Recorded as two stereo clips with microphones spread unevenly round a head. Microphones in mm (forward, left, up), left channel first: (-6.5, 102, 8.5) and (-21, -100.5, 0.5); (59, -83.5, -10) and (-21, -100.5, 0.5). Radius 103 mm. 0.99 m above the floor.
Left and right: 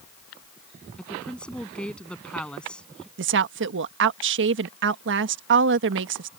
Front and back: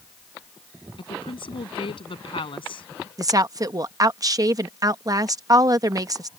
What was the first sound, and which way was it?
A woman speaking, straight ahead.